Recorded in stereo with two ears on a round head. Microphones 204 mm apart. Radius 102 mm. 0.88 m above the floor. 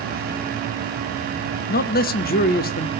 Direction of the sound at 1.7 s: 40° left (ahead or behind).